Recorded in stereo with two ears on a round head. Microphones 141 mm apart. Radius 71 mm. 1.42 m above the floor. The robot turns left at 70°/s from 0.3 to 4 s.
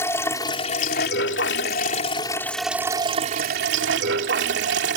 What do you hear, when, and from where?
0.0 s running water: 165° left; by 5.0 s 95° right